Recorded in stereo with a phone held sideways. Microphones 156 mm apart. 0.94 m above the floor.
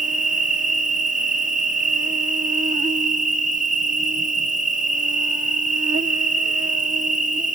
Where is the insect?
60° right (ahead or behind).